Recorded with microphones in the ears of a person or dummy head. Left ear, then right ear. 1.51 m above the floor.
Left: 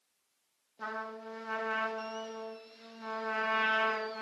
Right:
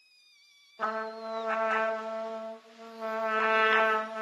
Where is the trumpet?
40° right (ahead or behind), 1.1 m.